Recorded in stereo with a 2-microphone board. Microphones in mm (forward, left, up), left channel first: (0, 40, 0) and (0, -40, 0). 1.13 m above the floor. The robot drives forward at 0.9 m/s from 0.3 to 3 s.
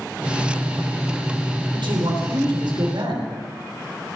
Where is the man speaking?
80° right, 3.5 m.